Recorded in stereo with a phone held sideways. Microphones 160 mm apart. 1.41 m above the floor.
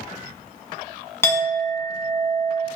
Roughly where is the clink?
Centre.